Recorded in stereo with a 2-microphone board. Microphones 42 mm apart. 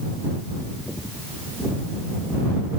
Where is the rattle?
I don't hear a rattle.